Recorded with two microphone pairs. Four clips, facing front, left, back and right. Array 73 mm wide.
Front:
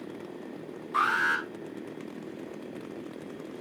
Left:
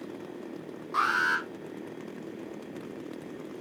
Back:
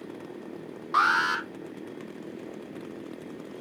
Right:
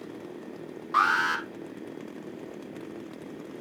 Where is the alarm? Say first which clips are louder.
Right 2 dB, back 3 dB; 155° right, 2.5 m.